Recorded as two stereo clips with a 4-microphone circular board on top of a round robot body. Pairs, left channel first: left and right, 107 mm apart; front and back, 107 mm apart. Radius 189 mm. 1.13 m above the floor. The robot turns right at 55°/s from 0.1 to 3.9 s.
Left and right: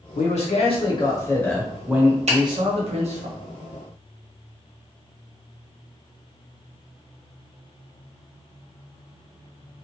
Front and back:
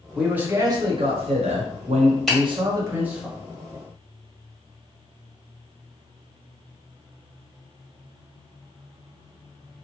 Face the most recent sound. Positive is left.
turn(degrees=0)